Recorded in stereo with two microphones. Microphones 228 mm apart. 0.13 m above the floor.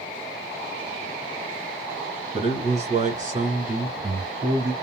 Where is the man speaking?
30° right (ahead or behind), 1.9 m; by 4.7 s 40° right (ahead or behind), 2 m.